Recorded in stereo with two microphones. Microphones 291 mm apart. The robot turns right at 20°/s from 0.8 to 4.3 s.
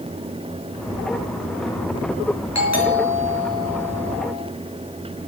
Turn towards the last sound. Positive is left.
turn(degrees=145)